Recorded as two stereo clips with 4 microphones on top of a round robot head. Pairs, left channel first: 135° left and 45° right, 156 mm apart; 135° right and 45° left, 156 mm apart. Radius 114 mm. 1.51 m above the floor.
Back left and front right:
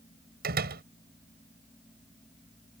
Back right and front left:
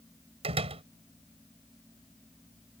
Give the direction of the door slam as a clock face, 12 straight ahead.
12 o'clock.